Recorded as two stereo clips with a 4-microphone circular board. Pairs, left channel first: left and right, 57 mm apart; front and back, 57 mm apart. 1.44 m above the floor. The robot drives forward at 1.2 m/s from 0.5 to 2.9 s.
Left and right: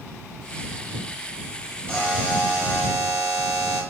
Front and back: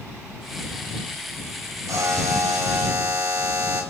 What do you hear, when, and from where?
1.9 s a buzzer: 160° left, 7.5 m